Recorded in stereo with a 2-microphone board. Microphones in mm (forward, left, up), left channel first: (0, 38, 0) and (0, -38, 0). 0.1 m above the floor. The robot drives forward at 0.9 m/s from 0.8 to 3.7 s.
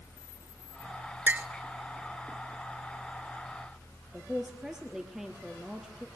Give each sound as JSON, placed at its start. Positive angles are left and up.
{"t": 1.3, "sound": "a clink", "side_deg": -20, "distance_m": 0.7}
{"t": 4.1, "sound": "a man speaking", "side_deg": -5, "distance_m": 2.0}